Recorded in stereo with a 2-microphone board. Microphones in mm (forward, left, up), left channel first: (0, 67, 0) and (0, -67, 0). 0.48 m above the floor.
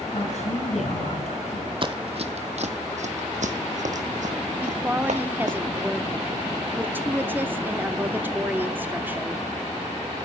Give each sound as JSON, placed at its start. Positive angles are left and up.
{"t": 0.1, "sound": "a woman speaking", "side_deg": 65, "distance_m": 6.0}
{"t": 1.8, "sound": "running footsteps", "side_deg": -40, "distance_m": 0.9}
{"t": 4.6, "sound": "a woman speaking", "side_deg": -15, "distance_m": 0.8}